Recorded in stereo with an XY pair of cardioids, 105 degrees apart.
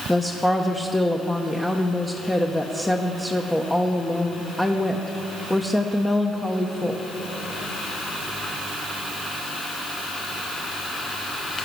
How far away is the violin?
I don't hear a violin.